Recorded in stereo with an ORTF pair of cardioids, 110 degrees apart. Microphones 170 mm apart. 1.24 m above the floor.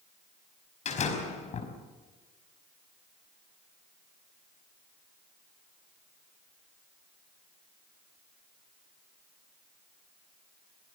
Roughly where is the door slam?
Ahead left.